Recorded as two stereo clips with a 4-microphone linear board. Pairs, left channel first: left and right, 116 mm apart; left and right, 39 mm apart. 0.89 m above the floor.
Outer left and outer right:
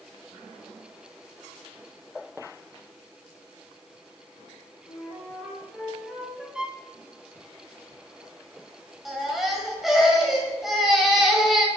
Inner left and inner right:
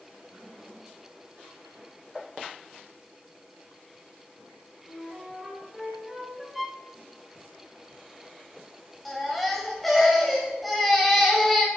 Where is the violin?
5° right (ahead or behind), 0.5 m.